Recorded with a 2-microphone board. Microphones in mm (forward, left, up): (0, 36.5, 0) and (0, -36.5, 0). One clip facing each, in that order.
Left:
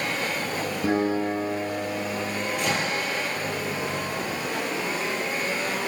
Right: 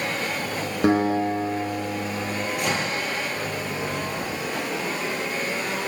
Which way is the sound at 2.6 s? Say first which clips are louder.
Even; 5° right (ahead or behind).